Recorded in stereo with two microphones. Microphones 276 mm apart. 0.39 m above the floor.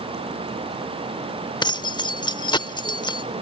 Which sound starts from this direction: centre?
Keys jangling, at 1.6 s.